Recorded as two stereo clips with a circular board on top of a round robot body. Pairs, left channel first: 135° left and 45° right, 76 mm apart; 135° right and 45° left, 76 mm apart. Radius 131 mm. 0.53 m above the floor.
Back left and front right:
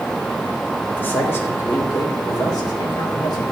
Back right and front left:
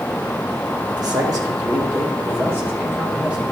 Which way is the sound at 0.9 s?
70° left.